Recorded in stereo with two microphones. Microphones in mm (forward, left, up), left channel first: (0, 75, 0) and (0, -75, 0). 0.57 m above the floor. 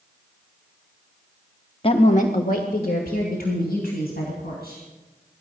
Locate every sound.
1.8 s a woman speaking: 35° left (ahead or behind), 0.7 m; by 4.8 s 80° left, 4.5 m